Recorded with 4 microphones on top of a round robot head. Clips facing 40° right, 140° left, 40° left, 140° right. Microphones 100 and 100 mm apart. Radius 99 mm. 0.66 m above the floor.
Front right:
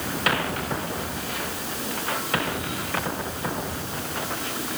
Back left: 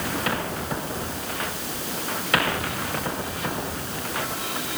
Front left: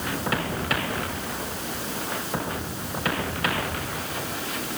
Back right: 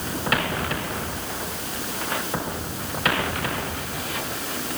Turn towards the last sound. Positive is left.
No sound to turn to.